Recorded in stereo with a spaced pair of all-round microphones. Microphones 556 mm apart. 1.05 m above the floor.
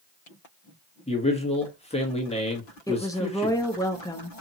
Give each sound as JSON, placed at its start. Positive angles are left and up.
{"t": 1.1, "sound": "a man speaking", "side_deg": 10, "distance_m": 1.3}
{"t": 2.9, "sound": "a woman speaking", "side_deg": 5, "distance_m": 0.9}